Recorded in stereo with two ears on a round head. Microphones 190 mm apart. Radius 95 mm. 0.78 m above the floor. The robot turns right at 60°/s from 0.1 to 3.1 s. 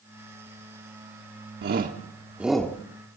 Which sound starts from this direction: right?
A shout, at 1.6 s.